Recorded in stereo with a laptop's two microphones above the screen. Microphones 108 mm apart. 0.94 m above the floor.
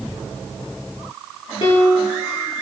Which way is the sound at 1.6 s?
60° left (ahead or behind).